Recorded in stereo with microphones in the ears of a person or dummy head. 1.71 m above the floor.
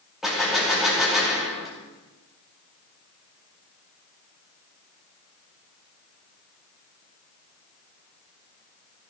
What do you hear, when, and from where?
0.2 s a gunshot: 5° right (ahead or behind), 2.5 m